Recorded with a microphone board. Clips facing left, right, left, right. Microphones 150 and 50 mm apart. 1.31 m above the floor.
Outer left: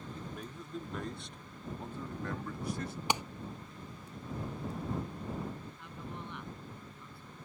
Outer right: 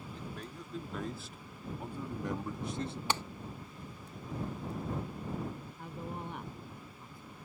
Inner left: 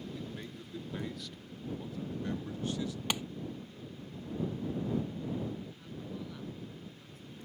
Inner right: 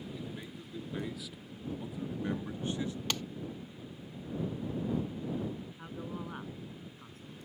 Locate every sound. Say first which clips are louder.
0.1 s a man speaking: even, even; 5° left (ahead or behind); by 3.0 s 30° right (ahead or behind)
3.1 s a clap: outer left 2 dB, inner left 3 dB; 15° left (ahead or behind)
5.8 s a man speaking: outer right 3 dB, inner right 2 dB; 45° right (ahead or behind)